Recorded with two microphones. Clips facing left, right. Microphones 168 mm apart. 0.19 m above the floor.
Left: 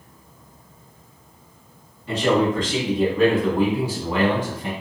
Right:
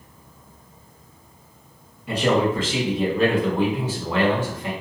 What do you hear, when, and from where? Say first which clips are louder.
2.1 s a man speaking: left 1 dB; 15° right (ahead or behind), 1.4 m; by 4.7 s 20° left (ahead or behind), 1.1 m